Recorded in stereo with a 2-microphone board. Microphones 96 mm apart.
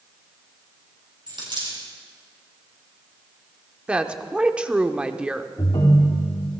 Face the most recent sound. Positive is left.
turn(degrees=65)  # may be behind; listen again after turning